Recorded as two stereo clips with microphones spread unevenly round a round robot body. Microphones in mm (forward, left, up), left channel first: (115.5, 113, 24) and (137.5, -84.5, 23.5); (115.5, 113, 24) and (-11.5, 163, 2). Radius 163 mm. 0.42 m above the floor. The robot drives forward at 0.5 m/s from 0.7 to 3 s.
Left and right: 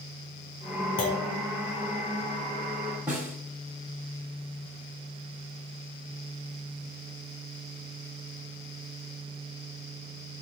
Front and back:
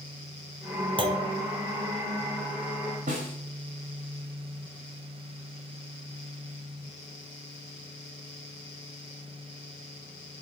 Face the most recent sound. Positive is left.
turn(degrees=-165)